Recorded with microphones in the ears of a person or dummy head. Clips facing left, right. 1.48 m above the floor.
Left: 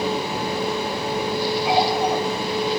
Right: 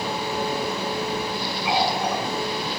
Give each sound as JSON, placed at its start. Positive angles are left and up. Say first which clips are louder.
{"t": 1.6, "sound": "a running tap", "louder": "left 2 dB", "side_deg": 35, "distance_m": 4.5}